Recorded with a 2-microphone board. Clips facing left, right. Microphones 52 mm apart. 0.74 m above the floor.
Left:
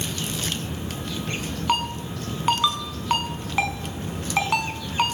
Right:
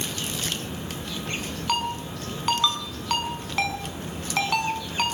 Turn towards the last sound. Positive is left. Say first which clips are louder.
# left 2 dB
turn(degrees=15)  # may be behind; listen again after turning